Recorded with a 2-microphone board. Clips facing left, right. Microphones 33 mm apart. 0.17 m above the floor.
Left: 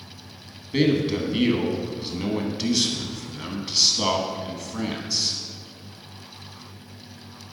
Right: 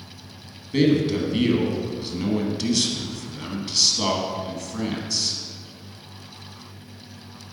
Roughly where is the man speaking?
Centre.